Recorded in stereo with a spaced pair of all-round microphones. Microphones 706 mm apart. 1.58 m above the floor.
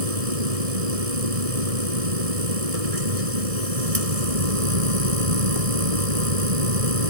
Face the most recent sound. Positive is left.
turn(degrees=-55)  # may be behind; listen again after turning